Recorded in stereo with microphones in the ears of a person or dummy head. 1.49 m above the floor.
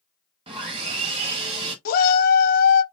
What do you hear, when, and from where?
0.5 s sawing: 30° right (ahead or behind), 1.5 m
1.9 s a shout: 55° left (ahead or behind), 0.8 m